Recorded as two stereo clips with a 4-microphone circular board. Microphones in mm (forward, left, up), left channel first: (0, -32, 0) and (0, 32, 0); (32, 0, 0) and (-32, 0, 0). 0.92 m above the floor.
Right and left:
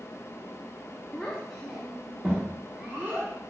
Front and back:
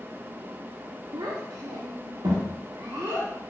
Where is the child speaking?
165° right, 0.8 m; by 3.3 s 150° left, 1.7 m.